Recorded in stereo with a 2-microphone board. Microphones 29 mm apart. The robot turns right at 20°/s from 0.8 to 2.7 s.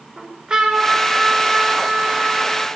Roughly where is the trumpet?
Ahead right.